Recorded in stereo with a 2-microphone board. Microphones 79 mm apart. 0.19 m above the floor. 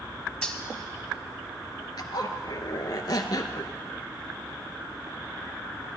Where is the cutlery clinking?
10° left (ahead or behind), 0.6 m.